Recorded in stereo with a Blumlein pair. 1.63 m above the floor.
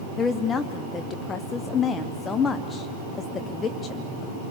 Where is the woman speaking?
20° left, 0.7 m.